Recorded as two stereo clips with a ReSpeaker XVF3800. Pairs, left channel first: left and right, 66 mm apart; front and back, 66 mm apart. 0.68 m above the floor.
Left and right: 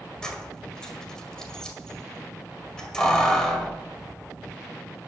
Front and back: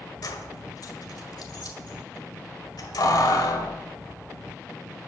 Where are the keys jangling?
10° left, 2.0 m.